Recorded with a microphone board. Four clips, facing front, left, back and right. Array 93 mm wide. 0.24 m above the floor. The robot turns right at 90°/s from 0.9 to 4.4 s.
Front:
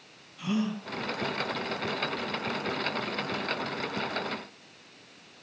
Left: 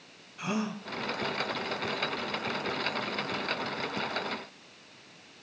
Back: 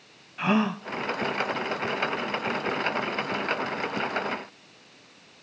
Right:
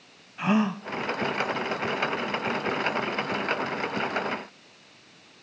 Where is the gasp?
150° right, 0.9 m.